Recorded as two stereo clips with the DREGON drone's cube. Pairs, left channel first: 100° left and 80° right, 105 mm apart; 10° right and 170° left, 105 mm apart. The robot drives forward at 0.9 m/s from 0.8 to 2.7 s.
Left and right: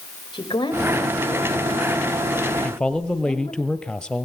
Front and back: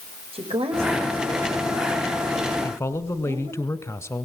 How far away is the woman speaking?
About 6.5 m.